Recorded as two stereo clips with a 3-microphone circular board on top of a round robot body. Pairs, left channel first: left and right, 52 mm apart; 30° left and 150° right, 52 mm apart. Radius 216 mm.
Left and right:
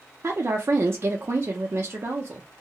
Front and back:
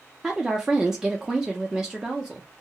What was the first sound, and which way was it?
A woman speaking, 75° right.